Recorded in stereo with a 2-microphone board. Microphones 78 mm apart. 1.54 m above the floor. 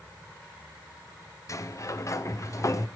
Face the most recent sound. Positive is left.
turn(degrees=40)  # may be behind; listen again after turning